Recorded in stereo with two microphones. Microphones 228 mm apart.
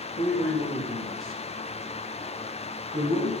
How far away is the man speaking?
About 4 m.